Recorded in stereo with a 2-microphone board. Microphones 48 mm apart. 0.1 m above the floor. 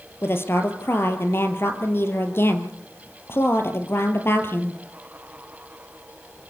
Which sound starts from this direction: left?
A woman speaking, at 0.2 s.